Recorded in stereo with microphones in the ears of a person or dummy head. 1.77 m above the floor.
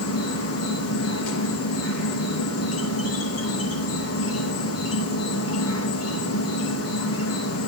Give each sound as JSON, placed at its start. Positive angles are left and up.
{"t": 0.0, "sound": "an insect", "side_deg": 80, "distance_m": 4.5}